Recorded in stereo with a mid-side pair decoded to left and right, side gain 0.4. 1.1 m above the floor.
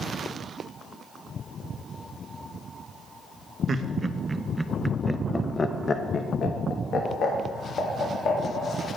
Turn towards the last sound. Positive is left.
turn(degrees=75)